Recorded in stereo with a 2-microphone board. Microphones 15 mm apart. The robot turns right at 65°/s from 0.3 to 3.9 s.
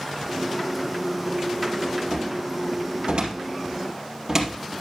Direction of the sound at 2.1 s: 35° right (ahead or behind).